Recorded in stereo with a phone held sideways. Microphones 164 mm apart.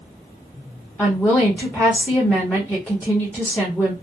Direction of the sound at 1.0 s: 10° left (ahead or behind).